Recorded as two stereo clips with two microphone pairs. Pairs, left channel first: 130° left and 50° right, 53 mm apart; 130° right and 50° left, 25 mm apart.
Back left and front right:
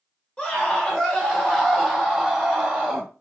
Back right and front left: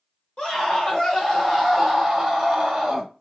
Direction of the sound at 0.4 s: 165° right.